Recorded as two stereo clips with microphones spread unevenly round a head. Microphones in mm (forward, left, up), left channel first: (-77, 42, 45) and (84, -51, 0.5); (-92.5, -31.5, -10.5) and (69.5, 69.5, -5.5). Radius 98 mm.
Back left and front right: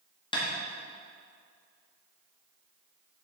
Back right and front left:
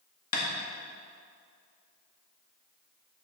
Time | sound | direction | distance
0.3 | tapping | 145° right | 1.9 m